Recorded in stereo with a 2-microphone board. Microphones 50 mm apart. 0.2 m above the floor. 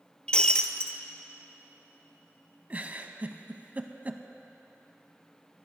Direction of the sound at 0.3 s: 15° left (ahead or behind).